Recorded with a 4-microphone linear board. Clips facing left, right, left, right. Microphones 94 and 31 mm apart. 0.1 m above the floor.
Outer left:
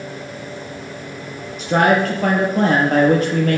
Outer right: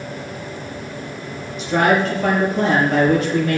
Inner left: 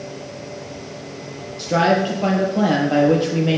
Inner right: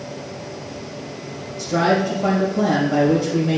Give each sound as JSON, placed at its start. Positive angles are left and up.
{"t": 1.6, "sound": "a man speaking", "side_deg": 55, "distance_m": 2.5}